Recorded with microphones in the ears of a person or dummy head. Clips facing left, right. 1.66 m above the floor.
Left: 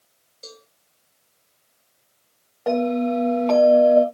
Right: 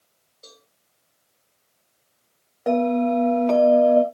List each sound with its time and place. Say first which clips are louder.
0.4 s a cowbell: left 7 dB; 25° left (ahead or behind), 2.5 m
2.7 s a bell: right 1 dB; 20° right (ahead or behind), 2 m